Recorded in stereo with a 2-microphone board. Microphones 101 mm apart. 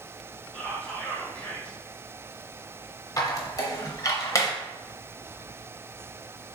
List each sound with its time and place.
0.5 s whispering: 10° left (ahead or behind), 0.8 m
3.2 s a squeak: 35° left (ahead or behind), 0.7 m